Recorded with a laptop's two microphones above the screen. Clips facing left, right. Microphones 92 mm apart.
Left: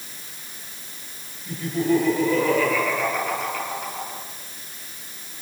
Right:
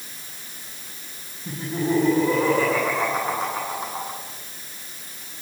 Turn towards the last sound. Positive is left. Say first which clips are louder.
# left 3 dB
turn(degrees=-35)  # may be behind; listen again after turning